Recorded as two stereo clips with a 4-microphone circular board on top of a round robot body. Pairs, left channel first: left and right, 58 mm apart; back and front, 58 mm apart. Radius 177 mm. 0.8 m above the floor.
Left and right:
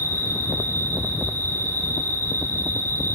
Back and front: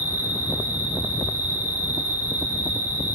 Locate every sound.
0.0 s an insect: 65° right, 5 m